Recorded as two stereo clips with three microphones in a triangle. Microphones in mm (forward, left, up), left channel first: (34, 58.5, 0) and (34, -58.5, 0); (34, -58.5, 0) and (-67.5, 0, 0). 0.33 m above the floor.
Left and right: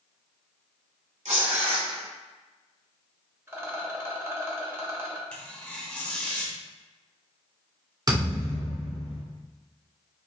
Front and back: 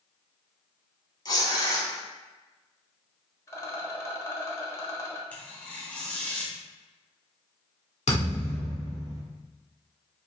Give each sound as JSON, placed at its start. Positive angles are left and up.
{"t": 1.2, "sound": "tearing paper", "azimuth_deg": -85, "distance_m": 1.0}
{"t": 3.5, "sound": "a rattle", "azimuth_deg": -55, "distance_m": 0.9}
{"t": 5.3, "sound": "tearing paper", "azimuth_deg": 25, "distance_m": 0.9}
{"t": 8.1, "sound": "a thud", "azimuth_deg": -35, "distance_m": 1.7}